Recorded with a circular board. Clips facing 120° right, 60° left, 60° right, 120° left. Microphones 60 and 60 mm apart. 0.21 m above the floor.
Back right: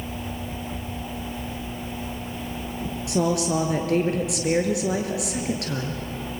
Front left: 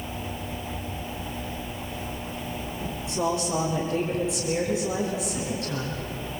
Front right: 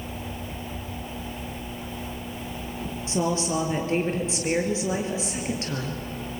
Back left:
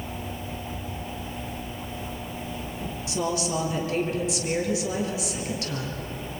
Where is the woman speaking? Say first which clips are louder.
Back right 4 dB, front right 2 dB; 120° right, 4 m.